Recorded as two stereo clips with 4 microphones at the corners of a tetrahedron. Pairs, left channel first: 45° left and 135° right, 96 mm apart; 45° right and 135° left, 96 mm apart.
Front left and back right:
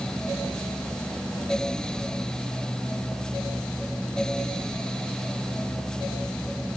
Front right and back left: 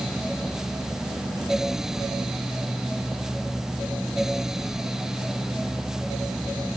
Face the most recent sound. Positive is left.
No sound to turn to.